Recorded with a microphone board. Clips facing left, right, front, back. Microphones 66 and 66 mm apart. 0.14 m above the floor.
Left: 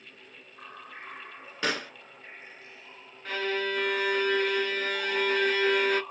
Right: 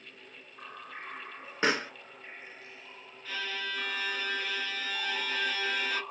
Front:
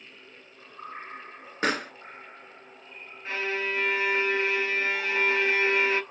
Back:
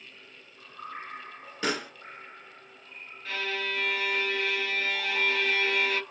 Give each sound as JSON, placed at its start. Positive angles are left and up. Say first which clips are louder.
{"t": 1.6, "sound": "a pop", "louder": "right 2 dB, front 3 dB", "azimuth_deg": -30, "distance_m": 1.1}
{"t": 3.2, "sound": "a violin", "louder": "left 7 dB, front 3 dB", "azimuth_deg": 55, "distance_m": 0.5}